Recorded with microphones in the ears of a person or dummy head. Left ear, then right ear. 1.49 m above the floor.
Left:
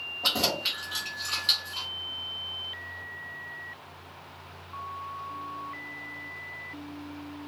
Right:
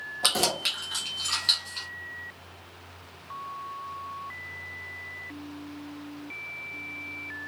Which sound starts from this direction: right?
Keys jangling, at 0.2 s.